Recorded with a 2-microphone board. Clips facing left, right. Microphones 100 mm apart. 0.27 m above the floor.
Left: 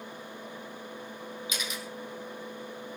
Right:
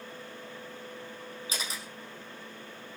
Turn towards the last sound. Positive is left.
turn(degrees=-35)  # may be behind; listen again after turning